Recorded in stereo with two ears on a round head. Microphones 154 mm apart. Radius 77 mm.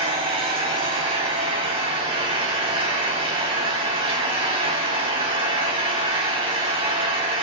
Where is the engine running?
30° right (ahead or behind), 5 m.